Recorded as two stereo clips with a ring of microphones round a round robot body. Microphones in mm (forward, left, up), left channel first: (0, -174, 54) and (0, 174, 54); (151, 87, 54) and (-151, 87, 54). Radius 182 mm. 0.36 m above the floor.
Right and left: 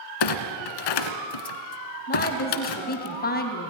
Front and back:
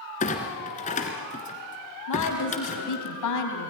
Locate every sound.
0.2 s a clunk: 70° right, 1.5 m
2.1 s a woman speaking: 25° right, 3.5 m